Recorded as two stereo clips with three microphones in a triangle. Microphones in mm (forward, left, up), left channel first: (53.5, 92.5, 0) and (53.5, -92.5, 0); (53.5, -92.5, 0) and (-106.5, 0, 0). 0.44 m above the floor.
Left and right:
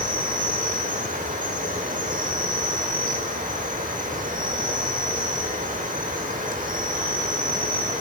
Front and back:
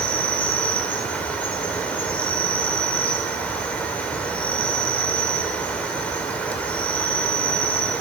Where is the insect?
110° right, 1.1 m.